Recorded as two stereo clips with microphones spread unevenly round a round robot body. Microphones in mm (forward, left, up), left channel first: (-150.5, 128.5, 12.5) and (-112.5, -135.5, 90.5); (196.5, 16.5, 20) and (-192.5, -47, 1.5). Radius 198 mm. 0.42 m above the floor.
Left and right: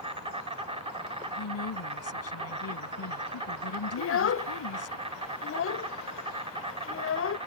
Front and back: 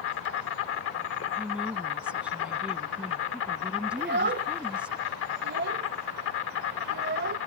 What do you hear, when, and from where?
0.0 s an insect: straight ahead
1.4 s a woman speaking: 100° left
4.0 s a child speaking: 125° left